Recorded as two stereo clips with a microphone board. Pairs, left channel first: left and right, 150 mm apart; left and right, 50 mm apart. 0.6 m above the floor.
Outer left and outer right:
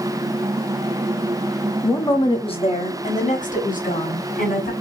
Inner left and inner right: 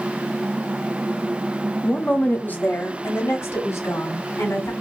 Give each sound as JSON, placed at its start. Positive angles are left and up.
{"t": 1.8, "sound": "a woman speaking", "side_deg": 15, "distance_m": 0.8}